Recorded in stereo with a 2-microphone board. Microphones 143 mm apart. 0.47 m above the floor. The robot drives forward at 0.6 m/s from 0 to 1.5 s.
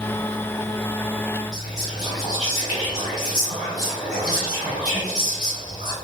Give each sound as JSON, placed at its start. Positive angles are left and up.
{"t": 1.5, "sound": "whispering", "side_deg": 10, "distance_m": 1.7}